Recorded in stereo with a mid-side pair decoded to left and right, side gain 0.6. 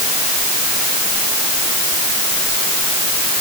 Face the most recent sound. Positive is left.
No sound to turn to.